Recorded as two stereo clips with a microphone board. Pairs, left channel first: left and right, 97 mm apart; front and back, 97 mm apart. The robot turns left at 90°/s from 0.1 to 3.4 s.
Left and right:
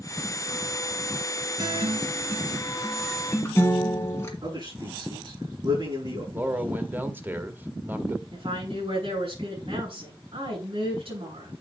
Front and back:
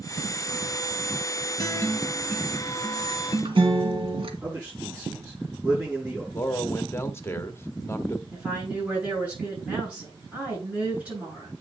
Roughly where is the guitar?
Ahead right.